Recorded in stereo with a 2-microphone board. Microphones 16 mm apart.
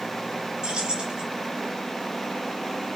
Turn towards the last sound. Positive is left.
turn(degrees=-75)  # may be behind; listen again after turning